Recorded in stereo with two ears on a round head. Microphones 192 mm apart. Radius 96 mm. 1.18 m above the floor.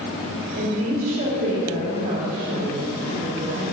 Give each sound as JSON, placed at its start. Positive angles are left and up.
{"t": 0.6, "sound": "a woman speaking", "side_deg": -40, "distance_m": 3.0}